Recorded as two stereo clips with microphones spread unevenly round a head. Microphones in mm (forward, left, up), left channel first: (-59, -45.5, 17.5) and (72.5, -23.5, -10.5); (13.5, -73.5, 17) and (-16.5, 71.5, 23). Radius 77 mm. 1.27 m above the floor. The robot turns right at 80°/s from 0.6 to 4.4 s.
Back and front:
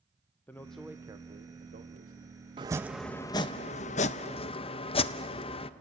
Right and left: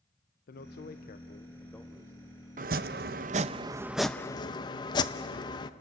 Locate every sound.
0.5 s a man speaking: 90° right, 0.7 m; by 2.3 s 45° left, 0.7 m
2.6 s chopping: 75° left, 0.6 m; by 5.7 s 140° right, 0.6 m